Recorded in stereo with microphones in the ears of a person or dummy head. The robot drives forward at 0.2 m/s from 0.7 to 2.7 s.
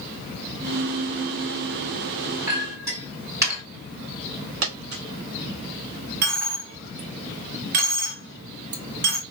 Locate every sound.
2.5 s a clink: 25° right (ahead or behind), 1.7 m; by 3.6 s 20° right (ahead or behind), 1.8 m
4.6 s a dropped coin: 60° right (ahead or behind), 1.0 m
6.2 s a dropped coin: 50° right (ahead or behind), 1.1 m